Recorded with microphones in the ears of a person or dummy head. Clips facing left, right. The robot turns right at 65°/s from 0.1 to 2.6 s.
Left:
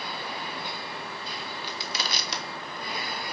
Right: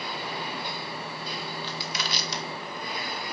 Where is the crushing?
10° left (ahead or behind), 1.4 m; by 3.2 s 70° left (ahead or behind), 1.4 m.